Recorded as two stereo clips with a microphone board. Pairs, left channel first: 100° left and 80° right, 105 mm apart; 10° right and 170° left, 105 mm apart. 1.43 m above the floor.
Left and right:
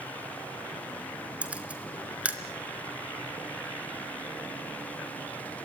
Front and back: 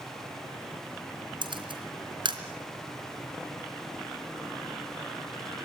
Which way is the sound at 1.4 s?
155° right.